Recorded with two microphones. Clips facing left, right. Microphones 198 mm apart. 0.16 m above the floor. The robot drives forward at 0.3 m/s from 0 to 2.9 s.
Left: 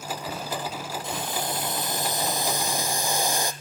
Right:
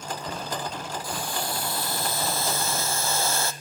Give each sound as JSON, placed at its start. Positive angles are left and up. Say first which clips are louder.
{"t": 1.0, "sound": "boiling", "louder": "left 2 dB", "side_deg": 25, "distance_m": 1.1}